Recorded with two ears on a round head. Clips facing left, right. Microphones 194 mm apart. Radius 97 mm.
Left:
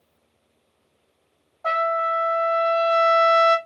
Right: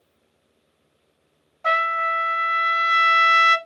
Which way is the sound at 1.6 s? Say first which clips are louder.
Left 3 dB; 30° right (ahead or behind).